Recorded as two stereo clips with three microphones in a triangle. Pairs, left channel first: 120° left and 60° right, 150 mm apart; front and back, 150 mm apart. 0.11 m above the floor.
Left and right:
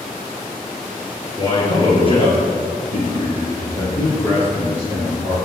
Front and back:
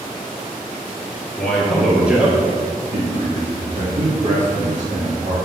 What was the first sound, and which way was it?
A man speaking, 75° left.